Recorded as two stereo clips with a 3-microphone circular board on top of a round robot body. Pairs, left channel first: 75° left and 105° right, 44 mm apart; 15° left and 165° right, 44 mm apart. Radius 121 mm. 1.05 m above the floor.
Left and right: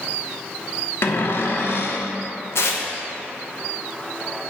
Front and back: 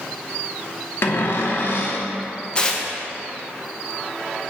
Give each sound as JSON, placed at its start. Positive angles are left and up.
{"t": 1.0, "sound": "a cupboard door", "azimuth_deg": 45, "distance_m": 0.9}
{"t": 2.5, "sound": "tearing paper", "azimuth_deg": 80, "distance_m": 1.0}